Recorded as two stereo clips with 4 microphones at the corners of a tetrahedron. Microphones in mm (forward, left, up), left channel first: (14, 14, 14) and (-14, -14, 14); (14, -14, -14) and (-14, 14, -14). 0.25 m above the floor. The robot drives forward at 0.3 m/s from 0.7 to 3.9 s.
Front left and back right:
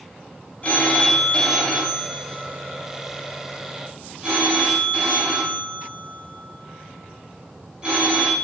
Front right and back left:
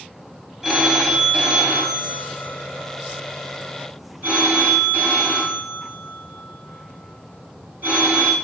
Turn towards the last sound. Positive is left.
turn(degrees=160)